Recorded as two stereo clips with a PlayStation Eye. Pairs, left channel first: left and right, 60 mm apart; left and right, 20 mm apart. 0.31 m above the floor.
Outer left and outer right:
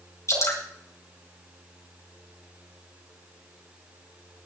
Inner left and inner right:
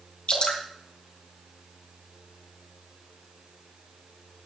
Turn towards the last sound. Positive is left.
turn(degrees=50)  # may be behind; listen again after turning